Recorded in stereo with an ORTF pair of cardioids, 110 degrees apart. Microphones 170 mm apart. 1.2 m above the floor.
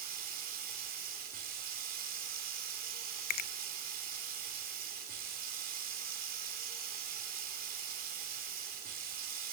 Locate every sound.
0.0 s running water: 60° right, 4 m
3.3 s a finger snap: 65° left, 0.8 m